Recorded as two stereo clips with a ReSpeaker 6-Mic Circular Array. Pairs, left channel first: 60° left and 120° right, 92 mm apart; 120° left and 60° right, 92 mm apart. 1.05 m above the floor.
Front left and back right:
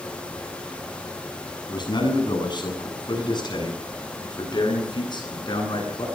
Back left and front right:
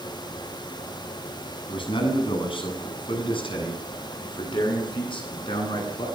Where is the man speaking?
95° left, 8 m.